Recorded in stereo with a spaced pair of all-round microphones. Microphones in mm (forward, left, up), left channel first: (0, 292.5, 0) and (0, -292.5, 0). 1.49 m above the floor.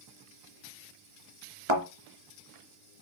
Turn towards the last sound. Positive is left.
turn(degrees=-55)  # may be behind; listen again after turning